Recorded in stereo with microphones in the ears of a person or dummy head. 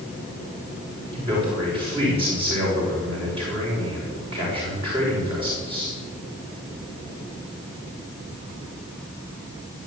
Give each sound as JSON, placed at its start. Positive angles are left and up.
{"t": 1.1, "sound": "a man speaking", "side_deg": -30, "distance_m": 5.5}